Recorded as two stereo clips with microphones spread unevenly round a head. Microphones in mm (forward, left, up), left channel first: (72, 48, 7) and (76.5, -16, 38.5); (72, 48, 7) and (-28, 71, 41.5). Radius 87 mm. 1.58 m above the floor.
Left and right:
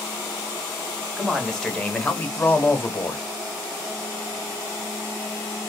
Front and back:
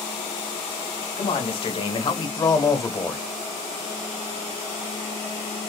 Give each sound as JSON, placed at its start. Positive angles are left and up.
{"t": 1.2, "sound": "a man speaking", "azimuth_deg": 10, "distance_m": 1.6}